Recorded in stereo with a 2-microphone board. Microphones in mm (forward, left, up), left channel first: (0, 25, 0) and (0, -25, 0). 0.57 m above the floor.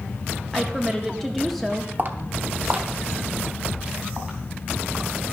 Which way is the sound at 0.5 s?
5° left (ahead or behind).